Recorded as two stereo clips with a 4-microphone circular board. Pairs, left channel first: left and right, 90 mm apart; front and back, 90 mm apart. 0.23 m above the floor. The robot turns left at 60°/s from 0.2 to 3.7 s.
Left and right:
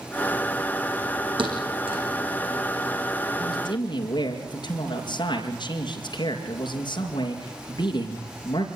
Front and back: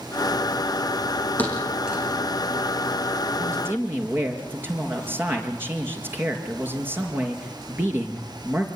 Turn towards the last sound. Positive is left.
turn(degrees=115)